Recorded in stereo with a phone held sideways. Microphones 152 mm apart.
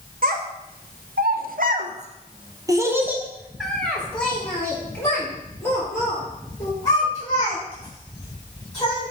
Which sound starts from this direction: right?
A child speaking, at 0.2 s.